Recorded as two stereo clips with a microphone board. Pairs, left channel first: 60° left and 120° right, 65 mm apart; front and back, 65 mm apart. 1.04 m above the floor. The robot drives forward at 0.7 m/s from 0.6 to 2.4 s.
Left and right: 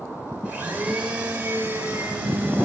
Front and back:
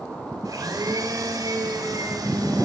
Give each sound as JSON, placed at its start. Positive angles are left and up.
{"t": 0.5, "sound": "a blender", "azimuth_deg": 170, "distance_m": 5.0}